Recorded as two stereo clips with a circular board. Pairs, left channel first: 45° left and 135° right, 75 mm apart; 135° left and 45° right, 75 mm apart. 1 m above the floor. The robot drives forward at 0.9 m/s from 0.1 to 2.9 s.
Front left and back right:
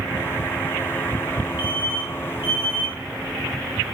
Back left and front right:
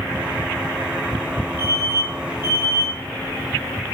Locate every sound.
1.6 s an alarm: 165° left, 4 m; by 3.0 s 170° left, 5 m